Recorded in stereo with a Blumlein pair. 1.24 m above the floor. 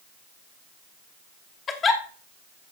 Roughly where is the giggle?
Ahead left.